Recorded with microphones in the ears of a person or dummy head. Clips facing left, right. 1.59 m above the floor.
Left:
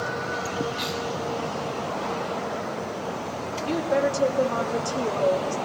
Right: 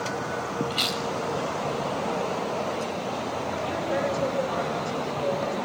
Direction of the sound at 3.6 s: 50° left (ahead or behind).